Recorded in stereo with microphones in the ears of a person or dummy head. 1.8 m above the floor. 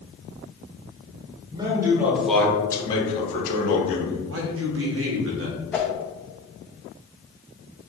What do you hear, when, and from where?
1.5 s a man speaking: 25° right (ahead or behind), 1.4 m; by 4.2 s 65° left (ahead or behind), 1.7 m
4.3 s a man speaking: 70° right (ahead or behind), 1.0 m
5.7 s a whoosh: 10° left (ahead or behind), 0.5 m